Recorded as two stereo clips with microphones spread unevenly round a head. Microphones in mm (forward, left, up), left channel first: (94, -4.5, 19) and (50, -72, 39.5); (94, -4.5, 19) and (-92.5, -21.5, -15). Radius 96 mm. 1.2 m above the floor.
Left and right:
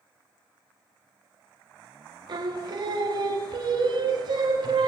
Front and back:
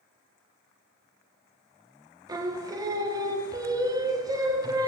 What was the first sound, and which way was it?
Singing, 100° right.